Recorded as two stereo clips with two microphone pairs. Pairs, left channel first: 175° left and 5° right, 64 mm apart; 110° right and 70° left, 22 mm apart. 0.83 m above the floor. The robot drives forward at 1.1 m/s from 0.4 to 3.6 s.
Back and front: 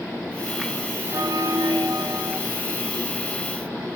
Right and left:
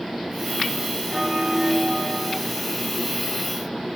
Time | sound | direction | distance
1.1 | a bell | 10° left | 2 m